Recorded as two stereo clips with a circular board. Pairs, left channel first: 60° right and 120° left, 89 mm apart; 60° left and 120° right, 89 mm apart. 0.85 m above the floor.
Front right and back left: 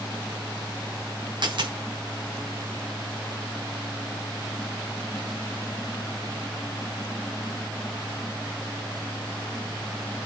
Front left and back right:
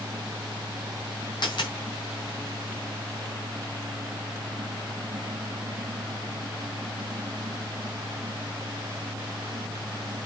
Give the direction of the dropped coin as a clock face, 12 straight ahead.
9 o'clock.